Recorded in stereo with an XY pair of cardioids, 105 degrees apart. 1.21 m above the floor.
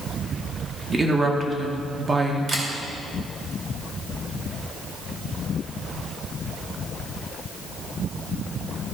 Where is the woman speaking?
30° right, 1.8 m.